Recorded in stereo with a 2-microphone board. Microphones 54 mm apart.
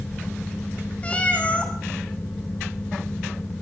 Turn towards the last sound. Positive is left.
turn(degrees=25)  # may be behind; listen again after turning